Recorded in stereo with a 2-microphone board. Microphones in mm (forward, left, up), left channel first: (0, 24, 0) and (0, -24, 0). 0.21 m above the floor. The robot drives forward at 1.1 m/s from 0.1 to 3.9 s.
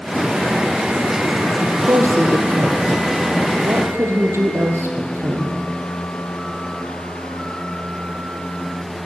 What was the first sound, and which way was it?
A woman speaking, 80° right.